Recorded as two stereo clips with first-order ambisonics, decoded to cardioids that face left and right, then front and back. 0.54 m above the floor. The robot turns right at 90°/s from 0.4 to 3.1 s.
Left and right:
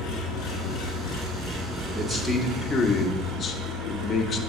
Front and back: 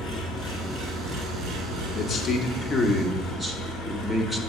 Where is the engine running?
70° left, 1.9 m; by 4.5 s 45° right, 1.9 m.